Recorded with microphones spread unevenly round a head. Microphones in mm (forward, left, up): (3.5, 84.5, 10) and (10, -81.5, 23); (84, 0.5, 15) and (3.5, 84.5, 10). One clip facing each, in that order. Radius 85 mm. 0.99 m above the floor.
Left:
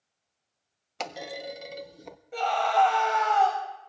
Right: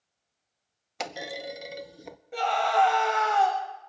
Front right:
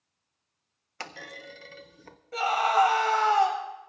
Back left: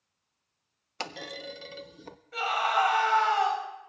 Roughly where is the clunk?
Behind.